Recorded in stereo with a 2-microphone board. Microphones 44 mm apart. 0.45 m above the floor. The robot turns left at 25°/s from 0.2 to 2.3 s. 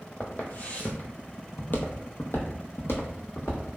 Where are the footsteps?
40° left (ahead or behind), 0.8 m; by 3.7 s 55° left (ahead or behind), 1.3 m.